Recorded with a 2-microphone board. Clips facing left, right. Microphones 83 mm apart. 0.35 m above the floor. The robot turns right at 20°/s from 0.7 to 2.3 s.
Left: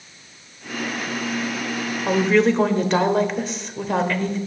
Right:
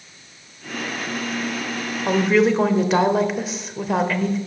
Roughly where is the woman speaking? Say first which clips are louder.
Even; centre.